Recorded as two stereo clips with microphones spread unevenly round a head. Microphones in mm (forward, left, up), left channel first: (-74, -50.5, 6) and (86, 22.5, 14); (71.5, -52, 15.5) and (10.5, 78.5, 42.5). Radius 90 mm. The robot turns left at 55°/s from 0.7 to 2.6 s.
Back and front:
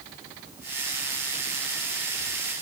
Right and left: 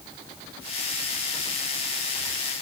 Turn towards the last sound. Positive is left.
No sound to turn to.